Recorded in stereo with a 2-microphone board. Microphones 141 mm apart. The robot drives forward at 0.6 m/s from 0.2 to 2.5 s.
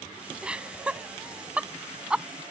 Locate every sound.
0.4 s laughter: 10° right (ahead or behind); by 2.2 s 5° right (ahead or behind)